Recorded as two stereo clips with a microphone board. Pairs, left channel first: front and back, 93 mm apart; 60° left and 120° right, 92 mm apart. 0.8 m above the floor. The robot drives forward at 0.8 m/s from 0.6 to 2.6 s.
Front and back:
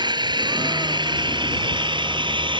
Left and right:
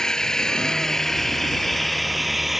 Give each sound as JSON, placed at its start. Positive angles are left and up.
{"t": 0.0, "sound": "an engine running", "azimuth_deg": 145}